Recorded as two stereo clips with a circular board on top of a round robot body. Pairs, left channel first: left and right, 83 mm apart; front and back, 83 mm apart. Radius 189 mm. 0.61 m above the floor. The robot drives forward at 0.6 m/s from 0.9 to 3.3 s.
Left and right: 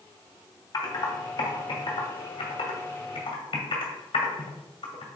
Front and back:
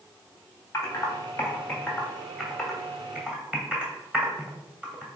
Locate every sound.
0.7 s typing on a keyboard: 55° left, 1.9 m; by 5.1 s 105° left, 1.7 m